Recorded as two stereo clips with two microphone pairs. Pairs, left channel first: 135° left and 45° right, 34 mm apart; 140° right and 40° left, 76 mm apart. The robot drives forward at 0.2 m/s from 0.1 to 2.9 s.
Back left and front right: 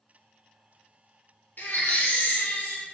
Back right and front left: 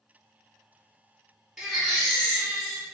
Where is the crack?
I don't hear a crack.